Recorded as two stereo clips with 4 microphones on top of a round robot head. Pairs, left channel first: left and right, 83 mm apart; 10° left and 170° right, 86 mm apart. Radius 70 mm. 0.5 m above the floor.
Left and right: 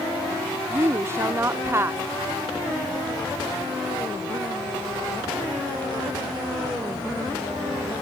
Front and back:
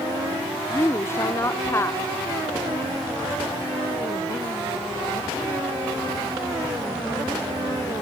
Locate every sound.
0.7 s a woman speaking: 45° right